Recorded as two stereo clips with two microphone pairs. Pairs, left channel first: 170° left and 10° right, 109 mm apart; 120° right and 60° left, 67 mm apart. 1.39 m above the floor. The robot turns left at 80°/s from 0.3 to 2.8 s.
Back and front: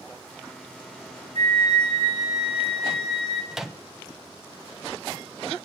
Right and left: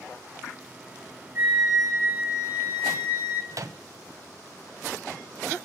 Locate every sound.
1.4 s a flute: straight ahead, 1.9 m; by 3.4 s 115° right, 1.9 m
3.5 s a microwave: 75° left, 0.6 m